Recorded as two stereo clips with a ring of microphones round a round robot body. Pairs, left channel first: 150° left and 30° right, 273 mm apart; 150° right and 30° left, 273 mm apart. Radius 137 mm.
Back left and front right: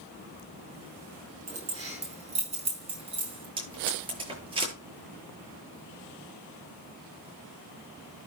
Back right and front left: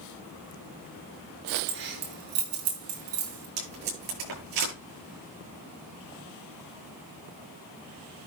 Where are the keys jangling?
35° left, 5.5 m; by 3.5 s 40° left, 4.5 m.